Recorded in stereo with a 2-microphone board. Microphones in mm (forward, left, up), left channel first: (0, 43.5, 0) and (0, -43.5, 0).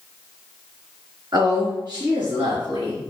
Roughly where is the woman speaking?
Right.